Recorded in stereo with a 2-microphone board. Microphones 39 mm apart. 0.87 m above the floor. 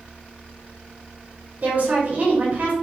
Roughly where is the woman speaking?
Right.